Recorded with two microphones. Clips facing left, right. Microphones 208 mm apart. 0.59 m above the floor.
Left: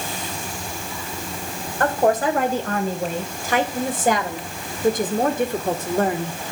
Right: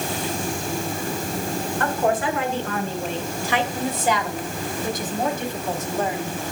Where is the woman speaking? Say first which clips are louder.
Left 5 dB; 40° left (ahead or behind), 3.5 m; by 6.4 s 55° left (ahead or behind), 1.7 m.